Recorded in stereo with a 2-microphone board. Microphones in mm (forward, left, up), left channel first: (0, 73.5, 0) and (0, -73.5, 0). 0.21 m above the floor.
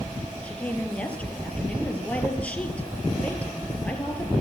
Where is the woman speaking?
10° left (ahead or behind), 3.5 m.